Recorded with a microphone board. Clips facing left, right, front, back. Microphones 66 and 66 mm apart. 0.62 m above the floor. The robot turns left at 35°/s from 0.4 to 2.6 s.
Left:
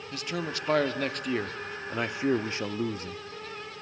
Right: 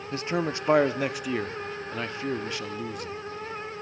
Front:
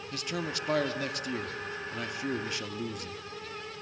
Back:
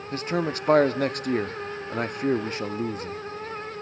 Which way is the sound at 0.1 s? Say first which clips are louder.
Right 6 dB, back 9 dB; 140° right.